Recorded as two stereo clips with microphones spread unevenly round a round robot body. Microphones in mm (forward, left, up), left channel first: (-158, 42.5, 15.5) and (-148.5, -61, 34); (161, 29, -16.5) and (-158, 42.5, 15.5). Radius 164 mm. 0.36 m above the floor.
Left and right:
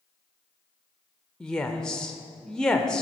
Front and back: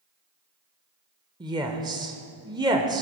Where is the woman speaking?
110° left, 0.9 m.